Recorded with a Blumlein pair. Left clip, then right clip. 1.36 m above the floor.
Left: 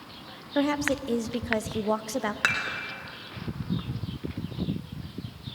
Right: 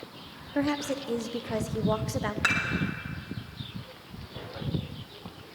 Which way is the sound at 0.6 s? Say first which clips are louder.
Left 3 dB; 10° left.